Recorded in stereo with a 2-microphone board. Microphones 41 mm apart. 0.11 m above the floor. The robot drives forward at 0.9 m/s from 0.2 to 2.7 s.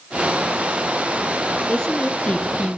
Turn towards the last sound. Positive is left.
turn(degrees=20)  # may be behind; listen again after turning